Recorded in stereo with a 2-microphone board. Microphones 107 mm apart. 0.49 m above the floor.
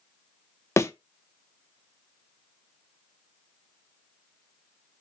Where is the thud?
25° left (ahead or behind), 0.5 m.